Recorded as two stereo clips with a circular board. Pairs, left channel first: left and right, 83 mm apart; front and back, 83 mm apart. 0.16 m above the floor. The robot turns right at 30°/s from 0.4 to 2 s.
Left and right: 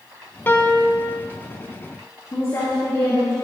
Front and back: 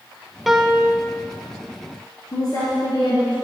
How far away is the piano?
About 0.6 m.